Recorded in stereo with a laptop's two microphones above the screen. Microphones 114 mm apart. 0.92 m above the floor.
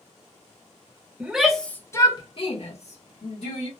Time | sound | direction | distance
1.2 | a shout | 10° right (ahead or behind) | 0.8 m